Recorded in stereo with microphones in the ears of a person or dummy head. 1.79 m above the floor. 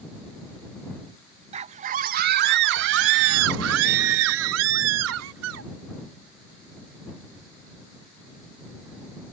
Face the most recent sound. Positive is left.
turn(degrees=-80)